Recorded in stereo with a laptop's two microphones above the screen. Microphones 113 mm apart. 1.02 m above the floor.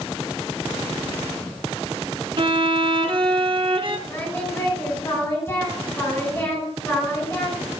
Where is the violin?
50° right (ahead or behind), 0.8 m.